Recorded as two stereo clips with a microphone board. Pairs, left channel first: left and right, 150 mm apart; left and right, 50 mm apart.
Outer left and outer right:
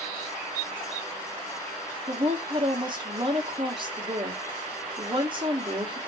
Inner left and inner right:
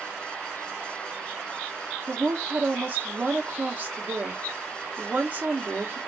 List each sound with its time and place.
2.1 s a woman speaking: 35° right (ahead or behind), 1.2 m